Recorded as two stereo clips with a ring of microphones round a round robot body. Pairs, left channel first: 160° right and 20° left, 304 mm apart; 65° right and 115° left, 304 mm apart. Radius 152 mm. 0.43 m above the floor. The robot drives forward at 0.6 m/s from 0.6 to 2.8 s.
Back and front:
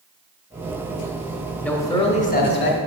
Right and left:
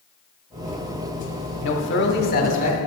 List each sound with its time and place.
1.6 s a man speaking: 75° right, 1.0 m; by 2.8 s 130° right, 1.1 m